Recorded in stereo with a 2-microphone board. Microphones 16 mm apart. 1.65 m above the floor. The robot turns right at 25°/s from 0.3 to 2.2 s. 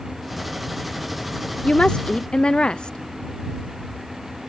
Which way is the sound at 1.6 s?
70° left (ahead or behind).